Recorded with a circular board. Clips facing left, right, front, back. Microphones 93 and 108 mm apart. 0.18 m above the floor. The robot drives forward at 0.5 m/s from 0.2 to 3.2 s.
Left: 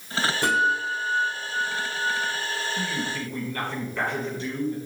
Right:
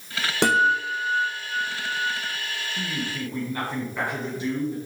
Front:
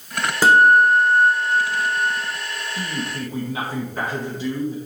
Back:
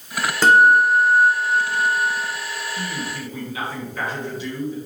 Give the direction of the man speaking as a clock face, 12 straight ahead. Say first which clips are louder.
Left 1 dB, front 1 dB; 1 o'clock.